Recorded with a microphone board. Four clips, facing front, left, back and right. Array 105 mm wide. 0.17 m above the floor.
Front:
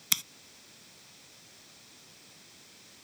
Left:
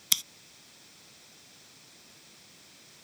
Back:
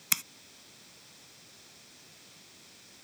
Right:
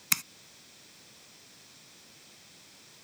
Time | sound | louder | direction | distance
0.1 | scissors | right 4 dB, back 2 dB | 110° right | ?